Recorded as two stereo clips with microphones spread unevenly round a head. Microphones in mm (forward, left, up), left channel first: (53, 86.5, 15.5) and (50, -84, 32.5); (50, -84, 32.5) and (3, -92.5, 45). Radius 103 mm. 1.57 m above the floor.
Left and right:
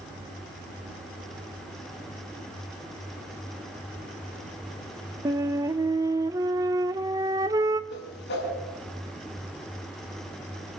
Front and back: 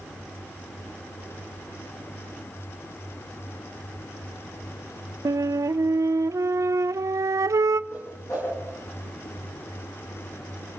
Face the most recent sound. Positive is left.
turn(degrees=70)